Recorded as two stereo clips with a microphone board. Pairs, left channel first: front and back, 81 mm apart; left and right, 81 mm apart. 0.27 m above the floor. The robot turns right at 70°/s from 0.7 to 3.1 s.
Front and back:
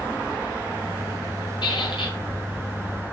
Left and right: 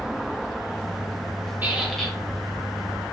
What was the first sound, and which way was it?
A squeak, 20° right.